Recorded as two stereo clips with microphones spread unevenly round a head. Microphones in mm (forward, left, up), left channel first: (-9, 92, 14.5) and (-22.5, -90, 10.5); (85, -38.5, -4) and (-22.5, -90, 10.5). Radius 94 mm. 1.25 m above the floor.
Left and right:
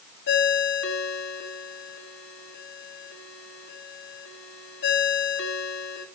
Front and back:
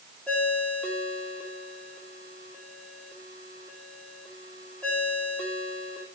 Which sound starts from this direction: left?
A ringtone, at 0.3 s.